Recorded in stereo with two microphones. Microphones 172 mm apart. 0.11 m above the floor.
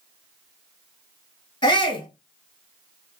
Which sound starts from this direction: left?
A shout, at 1.6 s.